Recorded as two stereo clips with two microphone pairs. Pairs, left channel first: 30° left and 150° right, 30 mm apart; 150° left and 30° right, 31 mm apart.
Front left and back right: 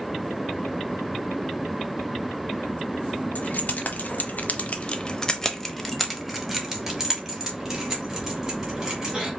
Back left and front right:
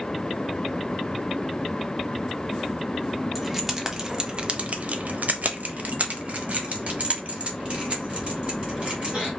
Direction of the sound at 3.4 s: 55° left.